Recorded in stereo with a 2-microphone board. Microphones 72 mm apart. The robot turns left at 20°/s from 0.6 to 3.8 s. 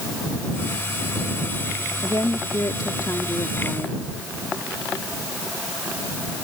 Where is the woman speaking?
85° left; by 4.0 s 50° left.